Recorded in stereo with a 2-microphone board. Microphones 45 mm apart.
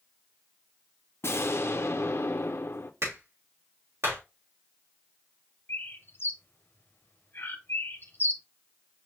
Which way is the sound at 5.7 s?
55° left (ahead or behind).